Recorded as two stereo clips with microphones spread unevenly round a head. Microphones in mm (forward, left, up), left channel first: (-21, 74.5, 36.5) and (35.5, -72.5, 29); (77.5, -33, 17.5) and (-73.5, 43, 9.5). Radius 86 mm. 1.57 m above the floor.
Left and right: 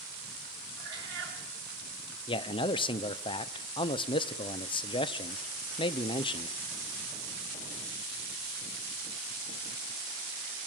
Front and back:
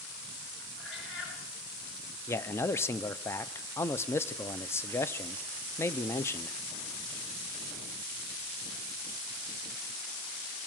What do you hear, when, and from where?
0.8 s a cat meowing: 50° right, 9.5 m
2.3 s a man speaking: 50° left, 0.7 m